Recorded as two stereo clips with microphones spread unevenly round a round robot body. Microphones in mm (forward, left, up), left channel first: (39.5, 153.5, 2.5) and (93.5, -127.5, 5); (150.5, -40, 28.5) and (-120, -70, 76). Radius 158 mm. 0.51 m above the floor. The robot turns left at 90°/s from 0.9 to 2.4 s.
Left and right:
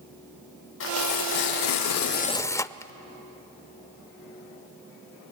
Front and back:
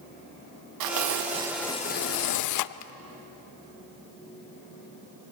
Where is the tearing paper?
155° left, 0.5 m; by 2.9 s 20° left, 0.5 m.